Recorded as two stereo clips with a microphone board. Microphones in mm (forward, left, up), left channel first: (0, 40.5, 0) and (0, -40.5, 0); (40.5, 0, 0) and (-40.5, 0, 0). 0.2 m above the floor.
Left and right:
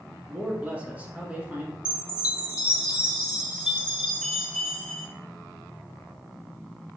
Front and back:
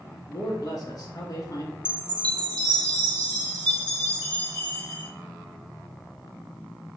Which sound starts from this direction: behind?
A chime, at 1.9 s.